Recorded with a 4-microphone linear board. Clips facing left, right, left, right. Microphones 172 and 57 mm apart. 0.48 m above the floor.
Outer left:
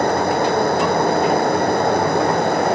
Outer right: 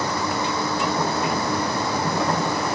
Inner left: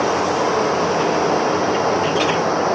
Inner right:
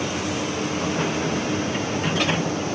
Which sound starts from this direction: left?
Running water, at 0.0 s.